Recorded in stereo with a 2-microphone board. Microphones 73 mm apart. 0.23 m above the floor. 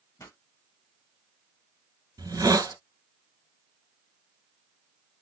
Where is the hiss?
55° right (ahead or behind), 1.3 m.